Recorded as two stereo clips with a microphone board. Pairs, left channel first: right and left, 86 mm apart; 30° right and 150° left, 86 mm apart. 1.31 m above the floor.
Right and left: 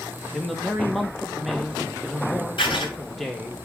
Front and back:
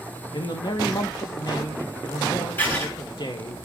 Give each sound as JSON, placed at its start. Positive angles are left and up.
{"t": 0.3, "sound": "a man speaking", "azimuth_deg": 0, "distance_m": 1.9}
{"t": 2.6, "sound": "writing", "azimuth_deg": -95, "distance_m": 5.5}